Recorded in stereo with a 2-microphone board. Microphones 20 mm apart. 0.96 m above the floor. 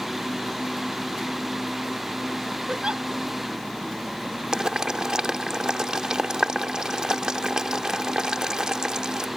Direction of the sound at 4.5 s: 40° right (ahead or behind).